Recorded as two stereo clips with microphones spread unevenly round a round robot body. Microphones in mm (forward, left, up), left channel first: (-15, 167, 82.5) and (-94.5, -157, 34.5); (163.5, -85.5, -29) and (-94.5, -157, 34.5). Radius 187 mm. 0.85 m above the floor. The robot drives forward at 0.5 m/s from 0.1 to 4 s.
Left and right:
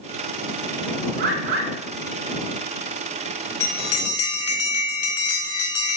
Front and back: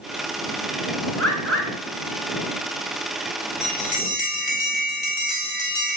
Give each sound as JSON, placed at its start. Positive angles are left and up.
{"t": 1.2, "sound": "a bird", "azimuth_deg": -75, "distance_m": 3.0}
{"t": 3.6, "sound": "a bell", "azimuth_deg": 115, "distance_m": 1.0}